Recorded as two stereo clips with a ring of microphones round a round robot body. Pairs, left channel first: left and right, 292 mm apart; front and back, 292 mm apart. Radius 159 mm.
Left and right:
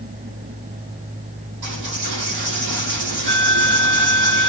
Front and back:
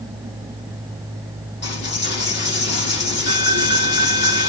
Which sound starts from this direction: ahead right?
A dropped coin, at 1.6 s.